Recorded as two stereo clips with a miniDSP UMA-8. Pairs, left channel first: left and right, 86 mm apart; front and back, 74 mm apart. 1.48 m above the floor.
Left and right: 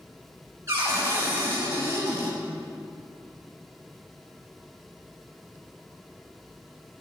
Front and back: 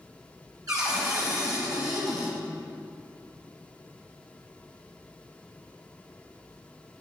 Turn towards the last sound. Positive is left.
turn(degrees=-145)